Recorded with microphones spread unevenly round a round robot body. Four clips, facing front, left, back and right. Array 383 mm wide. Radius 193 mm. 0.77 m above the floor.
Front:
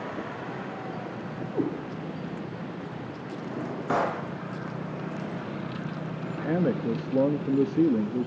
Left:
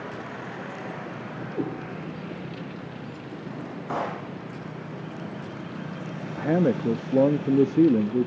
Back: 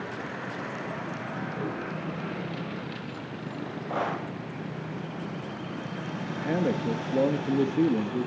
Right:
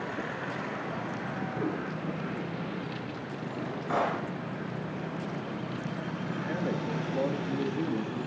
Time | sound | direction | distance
1.5 | a cat meowing | 40° left | 8 m
3.5 | a drawer | 5° left | 10 m
6.3 | a man speaking | 85° left | 0.9 m